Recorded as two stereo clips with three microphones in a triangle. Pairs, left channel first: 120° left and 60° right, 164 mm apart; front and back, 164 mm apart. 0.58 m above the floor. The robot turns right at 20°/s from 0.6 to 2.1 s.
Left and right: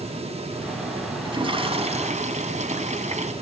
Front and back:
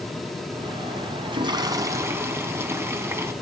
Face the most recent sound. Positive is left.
turn(degrees=-105)